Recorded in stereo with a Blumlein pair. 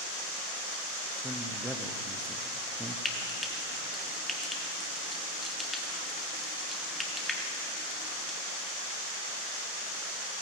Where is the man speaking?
Straight ahead, 0.7 m.